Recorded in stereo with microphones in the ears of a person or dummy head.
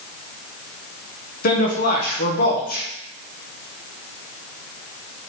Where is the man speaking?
55° left (ahead or behind), 1.4 m.